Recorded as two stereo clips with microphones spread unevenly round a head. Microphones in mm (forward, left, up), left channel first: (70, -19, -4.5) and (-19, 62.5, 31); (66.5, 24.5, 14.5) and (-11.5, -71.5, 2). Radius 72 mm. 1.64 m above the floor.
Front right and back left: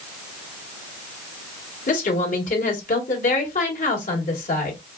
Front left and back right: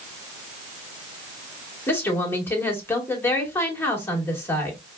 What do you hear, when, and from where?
1.9 s a woman speaking: 20° right, 1.8 m